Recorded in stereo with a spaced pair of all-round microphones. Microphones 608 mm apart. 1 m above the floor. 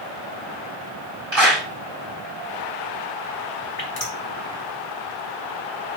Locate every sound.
1.3 s a clap: 50° right (ahead or behind), 5.5 m
3.8 s dripping: 70° left (ahead or behind), 2 m